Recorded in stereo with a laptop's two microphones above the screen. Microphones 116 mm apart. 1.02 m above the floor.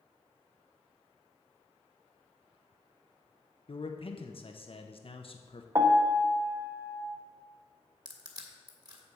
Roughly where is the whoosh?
No whoosh in this recording.